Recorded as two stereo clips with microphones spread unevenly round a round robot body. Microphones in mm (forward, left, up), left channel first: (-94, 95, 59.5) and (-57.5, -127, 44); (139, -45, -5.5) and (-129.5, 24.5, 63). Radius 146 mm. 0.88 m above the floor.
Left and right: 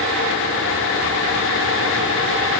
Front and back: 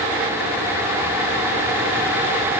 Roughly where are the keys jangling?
No keys jangling in this recording.